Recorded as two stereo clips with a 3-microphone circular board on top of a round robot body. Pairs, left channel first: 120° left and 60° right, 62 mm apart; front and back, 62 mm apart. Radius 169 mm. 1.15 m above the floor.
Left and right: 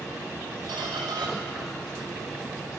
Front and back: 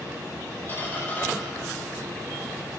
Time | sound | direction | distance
0.7 | a squeak | 60° right | 1.0 m